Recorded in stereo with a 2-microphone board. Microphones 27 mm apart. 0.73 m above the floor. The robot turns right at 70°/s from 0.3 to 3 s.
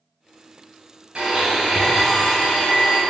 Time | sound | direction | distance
1.1 | a blender | 50° right | 1.8 m